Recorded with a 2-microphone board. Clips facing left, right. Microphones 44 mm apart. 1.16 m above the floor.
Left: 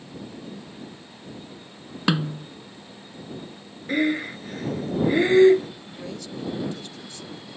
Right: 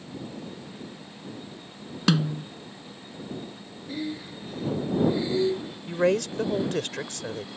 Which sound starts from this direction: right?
A woman speaking, at 5.9 s.